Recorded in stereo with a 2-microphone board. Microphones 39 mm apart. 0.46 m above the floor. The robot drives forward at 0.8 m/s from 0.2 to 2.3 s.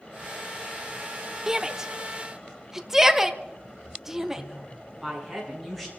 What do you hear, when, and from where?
1.5 s a shout: 15° right (ahead or behind), 0.8 m; by 4.4 s 10° right (ahead or behind), 1.1 m
4.3 s a woman speaking: centre (ahead or behind), 6.5 m